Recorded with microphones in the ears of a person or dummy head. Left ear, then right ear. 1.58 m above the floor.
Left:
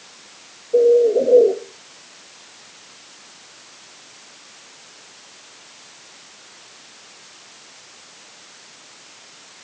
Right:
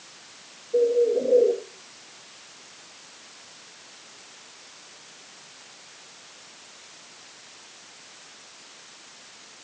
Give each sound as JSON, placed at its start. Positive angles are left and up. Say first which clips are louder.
{"t": 0.7, "sound": "a bird", "louder": "left 7 dB", "side_deg": 45, "distance_m": 1.5}